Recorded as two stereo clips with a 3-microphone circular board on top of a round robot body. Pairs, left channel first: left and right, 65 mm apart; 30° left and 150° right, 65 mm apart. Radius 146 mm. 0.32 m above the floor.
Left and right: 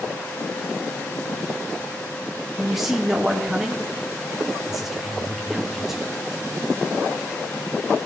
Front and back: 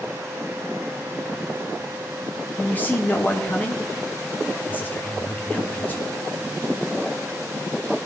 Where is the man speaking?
10° right, 1.3 m.